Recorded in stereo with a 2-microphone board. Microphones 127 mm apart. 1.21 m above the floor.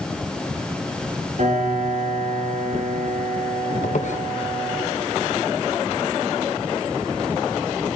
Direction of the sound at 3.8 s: 65° left (ahead or behind).